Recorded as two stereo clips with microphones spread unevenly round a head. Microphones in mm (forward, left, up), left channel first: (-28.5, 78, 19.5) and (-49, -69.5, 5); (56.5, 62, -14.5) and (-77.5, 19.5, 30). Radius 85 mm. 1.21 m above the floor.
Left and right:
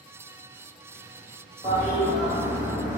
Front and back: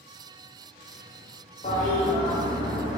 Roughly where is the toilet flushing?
Ahead right.